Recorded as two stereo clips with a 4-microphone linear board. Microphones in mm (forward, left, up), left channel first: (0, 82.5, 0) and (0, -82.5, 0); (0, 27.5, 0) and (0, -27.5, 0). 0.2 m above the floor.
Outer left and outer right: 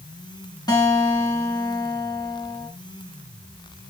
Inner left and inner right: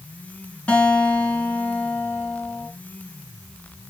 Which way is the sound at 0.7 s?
25° left (ahead or behind).